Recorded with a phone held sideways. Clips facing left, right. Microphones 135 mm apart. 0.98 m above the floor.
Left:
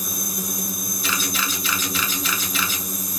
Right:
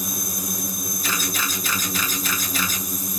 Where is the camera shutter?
45° right (ahead or behind), 0.8 m.